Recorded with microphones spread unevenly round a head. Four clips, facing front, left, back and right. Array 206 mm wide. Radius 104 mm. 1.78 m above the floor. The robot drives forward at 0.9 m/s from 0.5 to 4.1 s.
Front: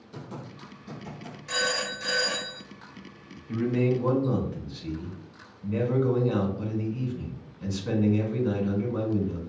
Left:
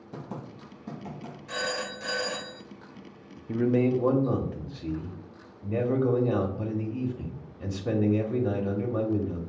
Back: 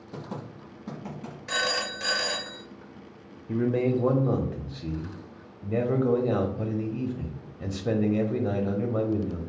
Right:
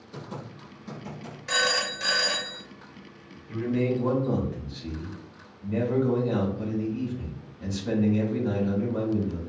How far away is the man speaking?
About 0.6 m.